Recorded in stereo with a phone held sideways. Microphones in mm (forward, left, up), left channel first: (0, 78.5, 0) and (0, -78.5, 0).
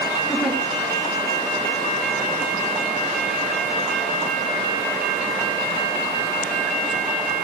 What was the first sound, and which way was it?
A giggle, 5° right (ahead or behind).